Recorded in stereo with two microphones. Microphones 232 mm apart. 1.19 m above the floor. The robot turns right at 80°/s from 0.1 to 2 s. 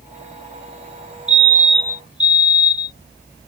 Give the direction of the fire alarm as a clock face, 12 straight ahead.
1 o'clock.